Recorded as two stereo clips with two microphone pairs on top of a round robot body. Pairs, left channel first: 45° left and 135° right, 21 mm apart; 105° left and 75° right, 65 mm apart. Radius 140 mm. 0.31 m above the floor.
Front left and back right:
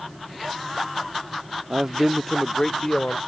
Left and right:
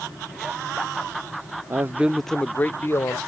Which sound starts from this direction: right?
A man speaking, at 1.7 s.